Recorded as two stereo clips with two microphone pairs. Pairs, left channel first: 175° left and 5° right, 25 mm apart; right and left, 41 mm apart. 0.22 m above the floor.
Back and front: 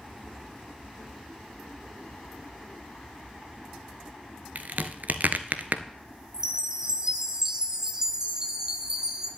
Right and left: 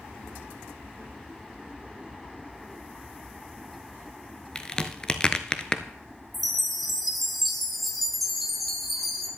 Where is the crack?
20° right, 0.7 m.